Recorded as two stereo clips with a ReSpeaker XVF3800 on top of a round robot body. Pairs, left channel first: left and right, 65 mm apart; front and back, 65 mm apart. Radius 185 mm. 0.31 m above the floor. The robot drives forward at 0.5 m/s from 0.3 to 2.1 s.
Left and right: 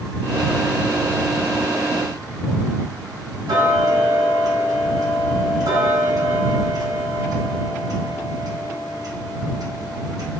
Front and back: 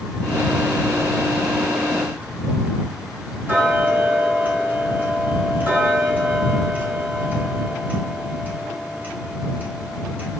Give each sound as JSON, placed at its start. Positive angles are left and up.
{"t": 3.5, "sound": "ticking", "azimuth_deg": -115, "distance_m": 1.1}